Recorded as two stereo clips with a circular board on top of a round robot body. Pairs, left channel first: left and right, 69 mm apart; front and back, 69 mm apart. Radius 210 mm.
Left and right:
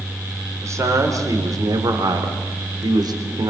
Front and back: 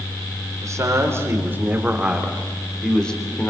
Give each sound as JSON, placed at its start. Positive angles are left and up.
{"t": 0.6, "sound": "a man speaking", "azimuth_deg": -135, "distance_m": 4.0}